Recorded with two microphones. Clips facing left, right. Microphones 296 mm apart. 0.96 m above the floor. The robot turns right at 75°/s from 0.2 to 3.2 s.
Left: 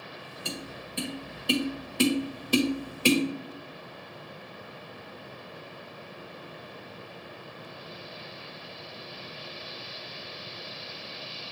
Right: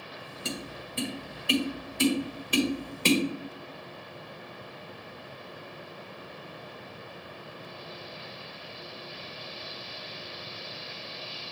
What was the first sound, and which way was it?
Tapping, 25° right (ahead or behind).